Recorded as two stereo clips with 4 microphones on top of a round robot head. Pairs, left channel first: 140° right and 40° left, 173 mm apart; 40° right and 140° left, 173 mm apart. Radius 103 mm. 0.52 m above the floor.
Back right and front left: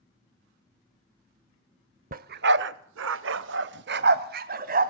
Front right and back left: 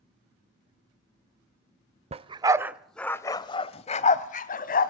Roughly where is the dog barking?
Left.